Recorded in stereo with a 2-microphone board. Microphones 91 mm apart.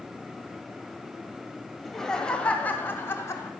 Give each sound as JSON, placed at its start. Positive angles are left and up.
{"t": 1.8, "sound": "laughter", "side_deg": 0, "distance_m": 2.5}